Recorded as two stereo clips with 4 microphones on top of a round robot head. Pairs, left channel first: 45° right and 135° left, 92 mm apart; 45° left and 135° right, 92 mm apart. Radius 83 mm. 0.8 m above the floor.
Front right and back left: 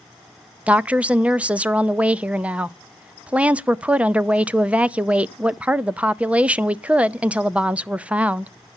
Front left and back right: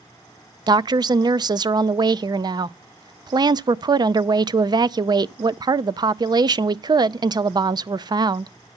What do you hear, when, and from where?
0.7 s a woman speaking: 155° right, 0.5 m